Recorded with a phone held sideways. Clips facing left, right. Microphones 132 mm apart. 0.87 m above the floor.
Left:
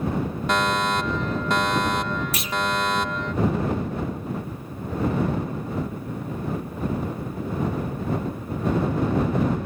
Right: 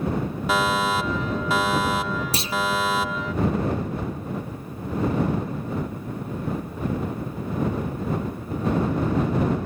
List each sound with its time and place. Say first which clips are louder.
0.5 s a fire alarm: right 1 dB; 5° right (ahead or behind)
2.3 s a clunk: right 2 dB; 30° right (ahead or behind)